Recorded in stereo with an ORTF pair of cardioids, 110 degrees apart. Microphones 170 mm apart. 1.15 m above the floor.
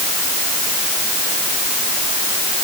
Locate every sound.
Only background noise.